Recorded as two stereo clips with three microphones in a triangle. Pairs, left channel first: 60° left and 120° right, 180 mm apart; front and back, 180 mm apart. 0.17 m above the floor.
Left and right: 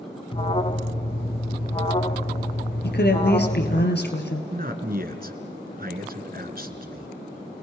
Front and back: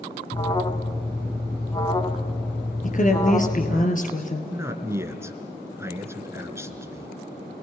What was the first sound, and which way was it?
An alarm, 40° left.